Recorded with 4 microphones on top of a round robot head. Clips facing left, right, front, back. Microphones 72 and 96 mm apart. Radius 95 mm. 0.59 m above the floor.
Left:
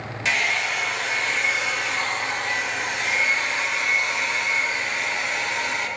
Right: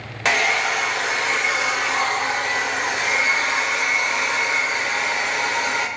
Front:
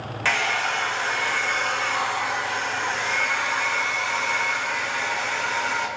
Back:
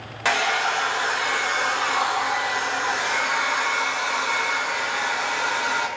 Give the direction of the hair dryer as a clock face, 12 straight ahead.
4 o'clock.